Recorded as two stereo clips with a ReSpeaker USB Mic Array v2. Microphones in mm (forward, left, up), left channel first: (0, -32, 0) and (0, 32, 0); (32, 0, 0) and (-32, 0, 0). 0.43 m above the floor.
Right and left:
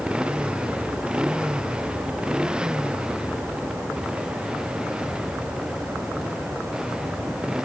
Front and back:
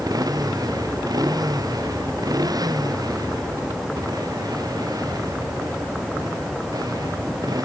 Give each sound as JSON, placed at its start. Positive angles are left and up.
{"t": 0.0, "sound": "a motorcycle", "azimuth_deg": 165}